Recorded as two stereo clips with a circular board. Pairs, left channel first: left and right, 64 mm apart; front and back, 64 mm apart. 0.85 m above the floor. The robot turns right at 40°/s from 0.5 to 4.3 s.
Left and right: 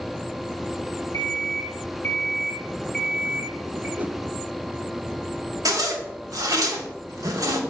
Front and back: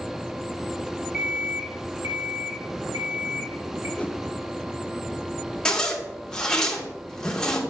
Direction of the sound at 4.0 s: 55° right.